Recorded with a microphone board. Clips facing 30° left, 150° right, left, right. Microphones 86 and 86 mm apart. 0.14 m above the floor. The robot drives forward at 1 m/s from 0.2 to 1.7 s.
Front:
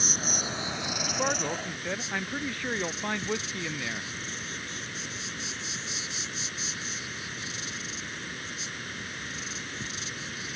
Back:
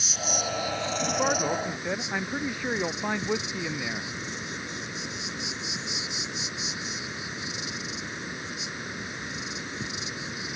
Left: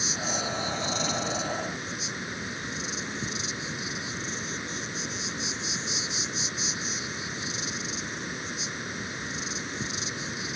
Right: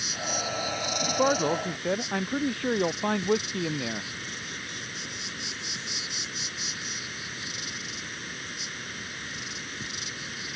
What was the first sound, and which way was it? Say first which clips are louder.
An insect: back 2 dB, left 1 dB; 35° left.